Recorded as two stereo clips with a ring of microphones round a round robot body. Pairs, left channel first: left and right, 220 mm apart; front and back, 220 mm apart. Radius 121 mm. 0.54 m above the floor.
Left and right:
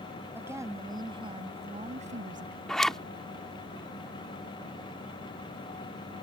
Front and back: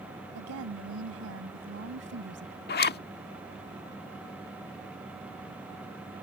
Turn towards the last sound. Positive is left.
turn(degrees=5)